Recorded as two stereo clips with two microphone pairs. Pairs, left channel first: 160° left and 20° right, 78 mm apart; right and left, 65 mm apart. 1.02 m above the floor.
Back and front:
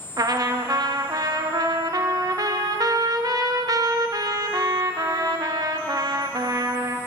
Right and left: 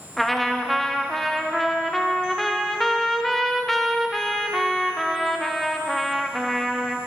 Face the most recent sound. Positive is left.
turn(degrees=-5)